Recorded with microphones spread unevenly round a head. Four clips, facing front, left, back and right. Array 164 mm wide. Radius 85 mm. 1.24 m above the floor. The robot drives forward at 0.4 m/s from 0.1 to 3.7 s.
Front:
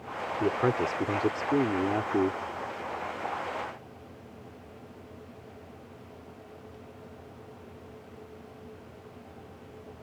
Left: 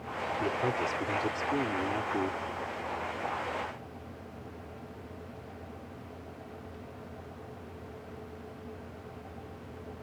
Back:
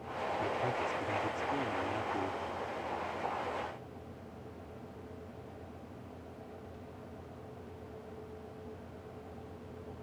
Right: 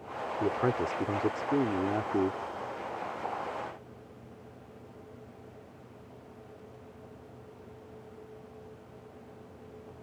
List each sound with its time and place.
0.4 s a man speaking: 20° right; by 2.4 s 25° right